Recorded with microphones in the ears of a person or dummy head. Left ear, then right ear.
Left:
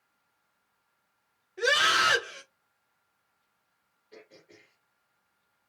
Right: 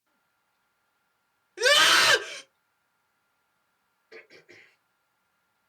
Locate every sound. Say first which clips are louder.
1.6 s a scream: right 4 dB; 75° right (ahead or behind), 1.6 m
4.1 s throat clearing: right 4 dB; 50° right (ahead or behind), 3.5 m